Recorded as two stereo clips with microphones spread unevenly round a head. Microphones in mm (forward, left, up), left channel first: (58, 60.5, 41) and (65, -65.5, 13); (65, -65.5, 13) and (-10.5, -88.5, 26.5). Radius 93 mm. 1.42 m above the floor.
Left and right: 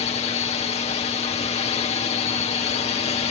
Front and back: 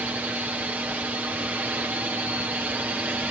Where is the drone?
120° left.